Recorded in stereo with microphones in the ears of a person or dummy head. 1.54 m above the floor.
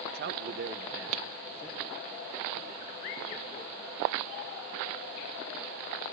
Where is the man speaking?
45° right (ahead or behind), 0.9 m; by 3.8 s 10° left (ahead or behind), 4.5 m.